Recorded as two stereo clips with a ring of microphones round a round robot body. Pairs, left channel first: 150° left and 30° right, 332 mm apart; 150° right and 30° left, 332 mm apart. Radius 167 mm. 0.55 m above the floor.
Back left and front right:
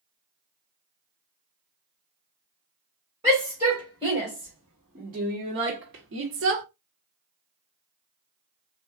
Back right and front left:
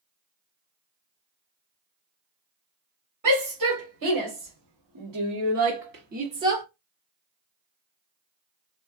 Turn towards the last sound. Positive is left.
turn(degrees=-50)